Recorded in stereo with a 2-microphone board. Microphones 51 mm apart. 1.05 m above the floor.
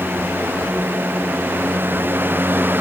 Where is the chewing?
I don't hear chewing.